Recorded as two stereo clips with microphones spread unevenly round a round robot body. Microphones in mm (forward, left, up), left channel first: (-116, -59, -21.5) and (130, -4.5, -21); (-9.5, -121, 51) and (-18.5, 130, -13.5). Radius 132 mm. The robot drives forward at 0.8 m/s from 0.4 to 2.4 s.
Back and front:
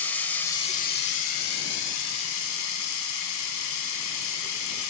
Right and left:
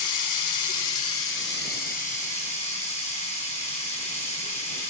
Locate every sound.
0.0 s running water: 85° right, 0.8 m; by 4.9 s 155° right, 1.7 m